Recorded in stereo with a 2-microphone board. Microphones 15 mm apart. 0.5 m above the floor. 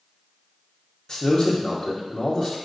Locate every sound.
1.1 s a man speaking: 40° left (ahead or behind), 0.8 m